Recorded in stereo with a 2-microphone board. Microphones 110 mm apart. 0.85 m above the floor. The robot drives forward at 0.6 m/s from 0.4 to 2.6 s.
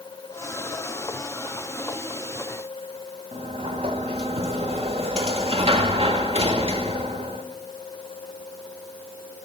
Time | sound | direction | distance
3.3 | a sliding door | 65° right (ahead or behind) | 1.4 m